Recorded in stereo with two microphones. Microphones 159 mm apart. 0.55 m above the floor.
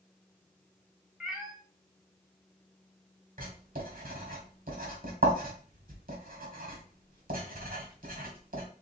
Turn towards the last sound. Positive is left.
turn(degrees=-60)  # may be behind; listen again after turning